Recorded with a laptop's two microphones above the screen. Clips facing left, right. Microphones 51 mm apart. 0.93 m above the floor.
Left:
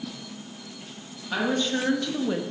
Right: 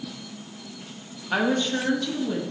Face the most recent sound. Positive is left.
turn(degrees=40)  # may be behind; listen again after turning